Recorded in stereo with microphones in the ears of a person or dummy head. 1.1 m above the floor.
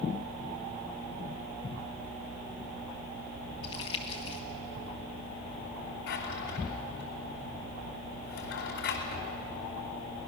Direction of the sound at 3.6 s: 20° left (ahead or behind).